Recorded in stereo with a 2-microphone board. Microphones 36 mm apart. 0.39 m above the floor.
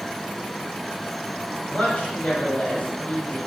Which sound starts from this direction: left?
A man speaking, at 1.7 s.